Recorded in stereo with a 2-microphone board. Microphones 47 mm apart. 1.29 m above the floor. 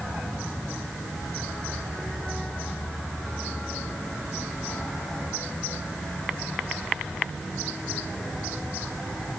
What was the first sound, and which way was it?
Only background noise.